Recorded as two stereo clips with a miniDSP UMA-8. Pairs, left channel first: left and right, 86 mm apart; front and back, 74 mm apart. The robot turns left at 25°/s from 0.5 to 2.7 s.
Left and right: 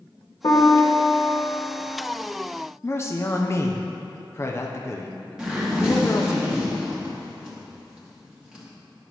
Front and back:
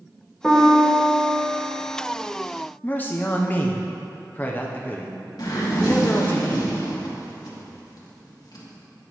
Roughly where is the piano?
Left.